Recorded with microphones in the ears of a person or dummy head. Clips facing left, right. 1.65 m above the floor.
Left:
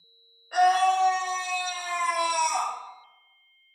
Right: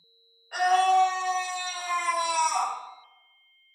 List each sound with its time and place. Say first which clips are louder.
0.5 s a scream: left 1 dB; 85° left, 1.4 m; by 2.7 s 30° left (ahead or behind), 1.5 m